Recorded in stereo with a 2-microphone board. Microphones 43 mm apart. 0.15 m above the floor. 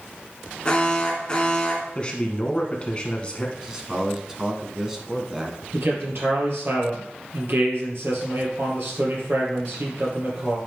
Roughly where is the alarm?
Left.